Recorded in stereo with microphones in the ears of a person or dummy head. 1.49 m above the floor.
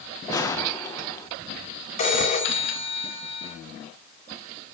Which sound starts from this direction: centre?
A gunshot, at 0.3 s.